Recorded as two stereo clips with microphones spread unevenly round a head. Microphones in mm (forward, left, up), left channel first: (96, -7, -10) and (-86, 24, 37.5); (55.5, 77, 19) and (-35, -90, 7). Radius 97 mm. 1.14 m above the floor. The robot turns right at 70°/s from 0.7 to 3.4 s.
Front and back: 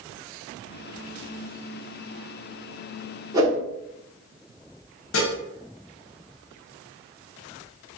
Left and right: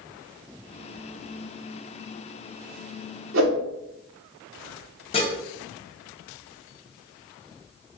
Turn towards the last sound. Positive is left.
turn(degrees=0)